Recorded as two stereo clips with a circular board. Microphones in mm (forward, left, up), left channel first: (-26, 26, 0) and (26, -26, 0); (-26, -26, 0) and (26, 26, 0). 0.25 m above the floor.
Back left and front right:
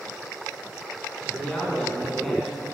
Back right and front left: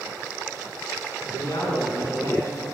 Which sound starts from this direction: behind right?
A man speaking, at 1.2 s.